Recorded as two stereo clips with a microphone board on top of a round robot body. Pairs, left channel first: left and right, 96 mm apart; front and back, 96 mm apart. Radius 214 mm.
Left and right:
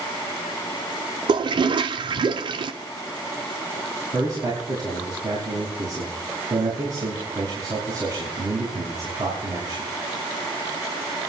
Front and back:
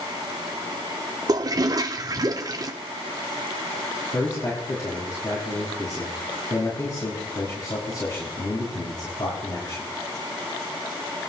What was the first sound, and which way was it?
A toilet flushing, 125° right.